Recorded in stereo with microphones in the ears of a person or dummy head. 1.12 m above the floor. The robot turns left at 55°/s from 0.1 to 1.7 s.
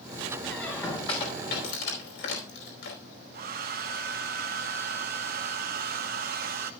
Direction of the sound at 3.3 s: 50° right (ahead or behind).